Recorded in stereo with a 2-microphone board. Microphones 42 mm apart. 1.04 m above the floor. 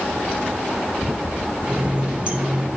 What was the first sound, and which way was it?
A running tap, 30° right (ahead or behind).